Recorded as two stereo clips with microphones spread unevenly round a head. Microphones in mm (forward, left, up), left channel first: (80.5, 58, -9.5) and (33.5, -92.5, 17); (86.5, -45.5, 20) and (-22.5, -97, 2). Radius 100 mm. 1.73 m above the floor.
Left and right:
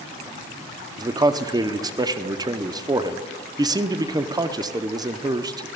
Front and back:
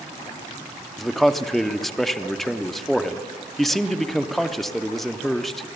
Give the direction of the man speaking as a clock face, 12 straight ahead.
2 o'clock.